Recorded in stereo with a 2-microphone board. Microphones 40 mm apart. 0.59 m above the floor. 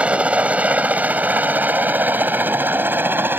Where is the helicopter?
30° right (ahead or behind); by 3.4 s 60° right (ahead or behind).